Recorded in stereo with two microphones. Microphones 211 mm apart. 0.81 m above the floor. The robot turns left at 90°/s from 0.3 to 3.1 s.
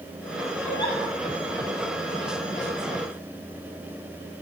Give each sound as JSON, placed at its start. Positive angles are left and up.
{"t": 0.6, "sound": "a giggle", "azimuth_deg": 175, "distance_m": 8.5}